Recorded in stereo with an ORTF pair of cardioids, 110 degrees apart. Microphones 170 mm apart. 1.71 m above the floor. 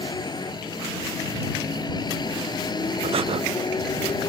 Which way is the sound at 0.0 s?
25° left.